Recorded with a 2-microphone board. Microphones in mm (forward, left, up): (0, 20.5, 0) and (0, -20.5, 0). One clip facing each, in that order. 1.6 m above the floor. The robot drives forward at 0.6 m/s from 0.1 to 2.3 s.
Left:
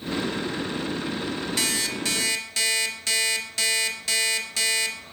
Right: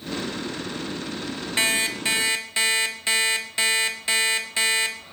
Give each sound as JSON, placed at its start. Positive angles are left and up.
{"t": 1.6, "sound": "an alarm clock", "side_deg": -30, "distance_m": 1.3}